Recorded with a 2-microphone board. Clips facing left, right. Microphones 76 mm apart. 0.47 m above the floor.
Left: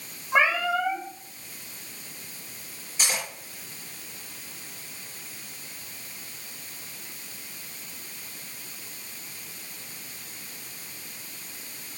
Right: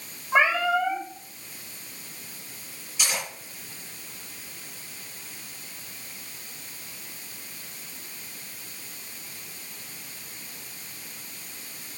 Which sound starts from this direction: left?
Cutlery clinking, at 3.0 s.